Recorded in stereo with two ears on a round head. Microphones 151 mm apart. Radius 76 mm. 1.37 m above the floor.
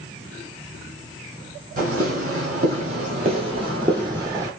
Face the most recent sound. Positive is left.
turn(degrees=-20)  # may be behind; listen again after turning